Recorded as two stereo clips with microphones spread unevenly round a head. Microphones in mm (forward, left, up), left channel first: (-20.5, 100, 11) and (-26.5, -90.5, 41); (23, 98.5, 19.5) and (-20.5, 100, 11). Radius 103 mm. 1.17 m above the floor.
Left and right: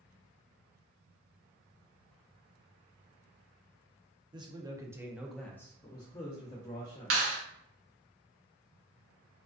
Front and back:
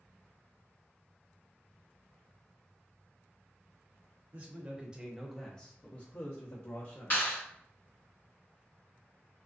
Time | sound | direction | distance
4.3 | a man speaking | 160° right | 0.7 m
7.1 | a clap | 70° right | 0.9 m